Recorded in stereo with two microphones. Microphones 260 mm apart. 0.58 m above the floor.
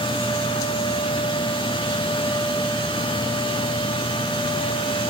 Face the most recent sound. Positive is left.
No sound to turn to.